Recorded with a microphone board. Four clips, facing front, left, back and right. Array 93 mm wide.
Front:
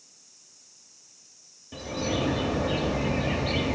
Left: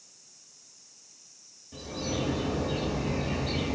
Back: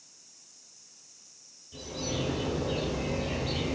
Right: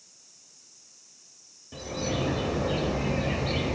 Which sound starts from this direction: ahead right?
A bird, at 1.7 s.